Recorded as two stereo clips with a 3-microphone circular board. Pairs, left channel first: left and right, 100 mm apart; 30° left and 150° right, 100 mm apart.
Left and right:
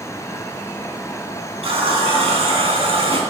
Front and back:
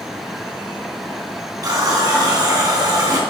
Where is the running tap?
100° right, 3 m.